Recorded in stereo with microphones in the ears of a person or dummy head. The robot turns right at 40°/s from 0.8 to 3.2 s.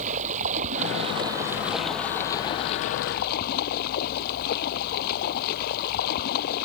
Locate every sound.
0.0 s running water: 40° right; by 6.7 s 55° left